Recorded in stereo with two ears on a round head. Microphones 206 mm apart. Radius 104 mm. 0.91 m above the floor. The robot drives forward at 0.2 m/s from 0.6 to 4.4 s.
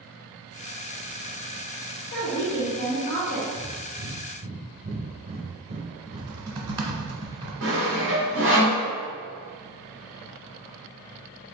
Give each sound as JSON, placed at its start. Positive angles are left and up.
{"t": 2.1, "sound": "a woman speaking", "side_deg": 50, "distance_m": 0.9}
{"t": 3.5, "sound": "breathing", "side_deg": -20, "distance_m": 0.6}
{"t": 6.1, "sound": "typing on a keyboard", "side_deg": -20, "distance_m": 0.8}
{"t": 7.6, "sound": "sawing", "side_deg": -55, "distance_m": 1.3}